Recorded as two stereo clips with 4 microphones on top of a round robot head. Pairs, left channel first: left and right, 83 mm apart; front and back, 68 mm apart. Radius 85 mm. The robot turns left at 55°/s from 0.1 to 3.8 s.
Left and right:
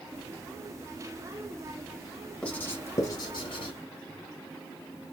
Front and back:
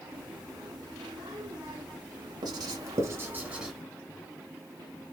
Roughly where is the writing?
Behind.